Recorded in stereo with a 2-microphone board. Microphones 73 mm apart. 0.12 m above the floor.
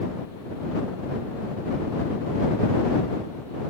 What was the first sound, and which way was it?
Only background noise.